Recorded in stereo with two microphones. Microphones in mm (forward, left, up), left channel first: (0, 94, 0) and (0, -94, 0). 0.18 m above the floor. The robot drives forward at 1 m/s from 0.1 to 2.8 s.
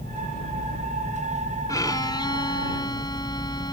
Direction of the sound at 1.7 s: 20° left (ahead or behind).